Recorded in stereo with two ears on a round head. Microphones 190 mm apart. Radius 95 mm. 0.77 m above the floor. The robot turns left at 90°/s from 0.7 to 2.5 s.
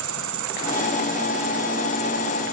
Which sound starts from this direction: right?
An insect, at 0.0 s.